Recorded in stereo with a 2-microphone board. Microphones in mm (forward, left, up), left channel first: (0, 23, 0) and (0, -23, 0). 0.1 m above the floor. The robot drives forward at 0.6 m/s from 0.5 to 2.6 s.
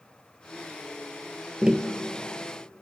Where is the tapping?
20° right (ahead or behind), 1.2 m.